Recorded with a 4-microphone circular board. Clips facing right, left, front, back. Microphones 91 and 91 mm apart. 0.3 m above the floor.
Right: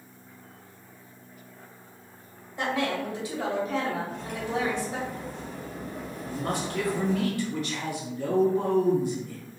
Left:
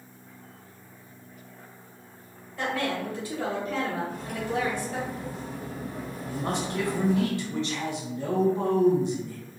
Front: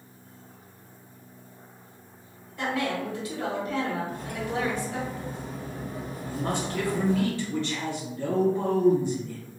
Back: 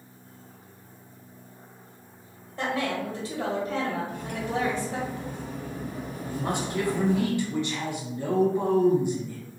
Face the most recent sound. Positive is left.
turn(degrees=125)